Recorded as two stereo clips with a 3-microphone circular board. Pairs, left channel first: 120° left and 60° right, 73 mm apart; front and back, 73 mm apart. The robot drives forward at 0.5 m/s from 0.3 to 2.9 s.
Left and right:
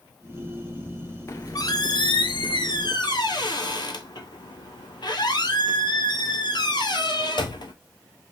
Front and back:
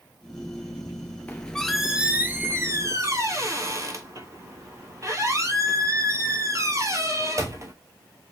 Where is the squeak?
70° left, 0.6 m; by 7.7 s 135° left, 0.8 m.